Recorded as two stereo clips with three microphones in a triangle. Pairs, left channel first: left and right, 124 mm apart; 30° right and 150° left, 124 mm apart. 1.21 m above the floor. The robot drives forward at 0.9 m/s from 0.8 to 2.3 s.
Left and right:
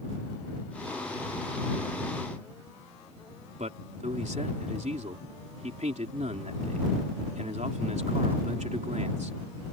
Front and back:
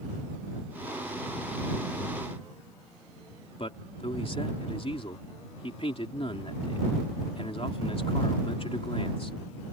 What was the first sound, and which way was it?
A man speaking, 70° right.